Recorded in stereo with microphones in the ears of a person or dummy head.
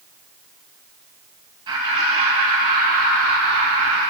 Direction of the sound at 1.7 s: 20° right (ahead or behind).